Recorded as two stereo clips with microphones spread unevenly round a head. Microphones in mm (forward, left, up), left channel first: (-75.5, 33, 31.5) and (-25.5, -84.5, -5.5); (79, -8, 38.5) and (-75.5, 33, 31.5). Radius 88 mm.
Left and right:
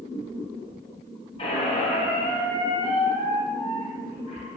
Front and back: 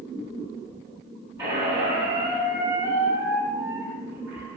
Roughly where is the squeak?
Left.